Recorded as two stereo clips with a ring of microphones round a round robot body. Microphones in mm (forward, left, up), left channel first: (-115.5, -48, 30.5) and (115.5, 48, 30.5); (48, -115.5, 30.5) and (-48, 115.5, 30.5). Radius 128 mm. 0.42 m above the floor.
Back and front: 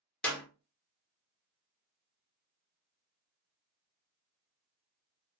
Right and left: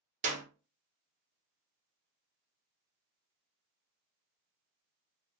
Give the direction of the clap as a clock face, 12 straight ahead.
8 o'clock.